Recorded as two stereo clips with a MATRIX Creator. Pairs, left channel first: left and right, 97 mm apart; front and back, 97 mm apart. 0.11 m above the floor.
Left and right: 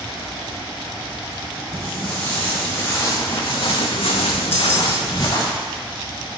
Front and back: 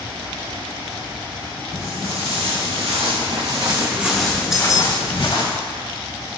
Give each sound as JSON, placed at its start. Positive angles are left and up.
{"t": 1.7, "sound": "footsteps", "azimuth_deg": 170, "distance_m": 1.9}
{"t": 4.5, "sound": "keys jangling", "azimuth_deg": 100, "distance_m": 0.8}